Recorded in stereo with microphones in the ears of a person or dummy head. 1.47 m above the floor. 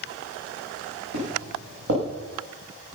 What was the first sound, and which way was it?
Footsteps, 70° right (ahead or behind).